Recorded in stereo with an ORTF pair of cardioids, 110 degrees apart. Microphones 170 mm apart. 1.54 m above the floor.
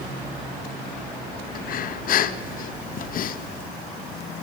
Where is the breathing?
55° left, 2.5 m.